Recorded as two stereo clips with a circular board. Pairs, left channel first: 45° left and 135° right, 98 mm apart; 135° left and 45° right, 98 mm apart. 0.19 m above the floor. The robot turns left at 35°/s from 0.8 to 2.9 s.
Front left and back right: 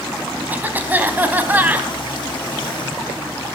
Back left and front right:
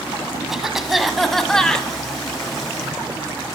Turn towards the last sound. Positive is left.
turn(degrees=165)